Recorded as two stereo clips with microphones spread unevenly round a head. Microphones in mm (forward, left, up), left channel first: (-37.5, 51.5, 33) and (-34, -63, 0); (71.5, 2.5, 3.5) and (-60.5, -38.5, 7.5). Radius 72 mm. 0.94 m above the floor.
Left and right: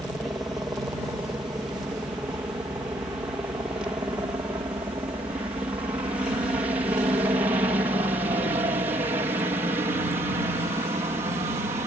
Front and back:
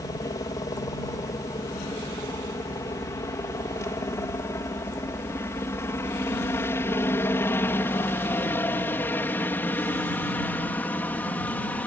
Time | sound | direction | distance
0.0 | a helicopter | 25° right | ?